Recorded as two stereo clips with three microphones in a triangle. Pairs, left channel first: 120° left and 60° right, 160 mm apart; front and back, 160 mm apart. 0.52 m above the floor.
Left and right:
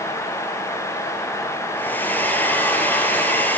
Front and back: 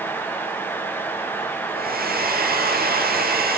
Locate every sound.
1.7 s a hair dryer: 160° right, 5.5 m